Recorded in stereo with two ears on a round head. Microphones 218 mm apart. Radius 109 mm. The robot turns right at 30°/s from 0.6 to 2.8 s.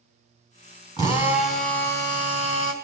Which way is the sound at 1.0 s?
15° left.